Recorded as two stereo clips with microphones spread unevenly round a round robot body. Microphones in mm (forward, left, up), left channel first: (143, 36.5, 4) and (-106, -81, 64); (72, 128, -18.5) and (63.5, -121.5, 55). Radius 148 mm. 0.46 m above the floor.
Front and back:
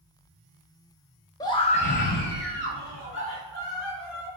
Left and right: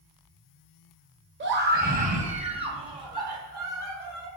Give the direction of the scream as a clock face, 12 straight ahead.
1 o'clock.